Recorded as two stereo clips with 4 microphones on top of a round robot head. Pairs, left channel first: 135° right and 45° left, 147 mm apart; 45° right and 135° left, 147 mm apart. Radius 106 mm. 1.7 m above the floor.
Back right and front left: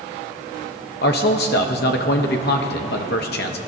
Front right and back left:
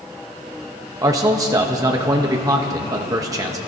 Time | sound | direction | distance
1.0 | a man speaking | 155° right | 0.8 m